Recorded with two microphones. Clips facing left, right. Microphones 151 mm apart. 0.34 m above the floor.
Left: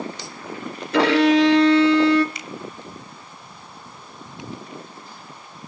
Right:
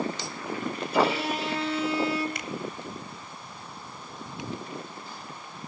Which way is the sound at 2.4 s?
55° right (ahead or behind).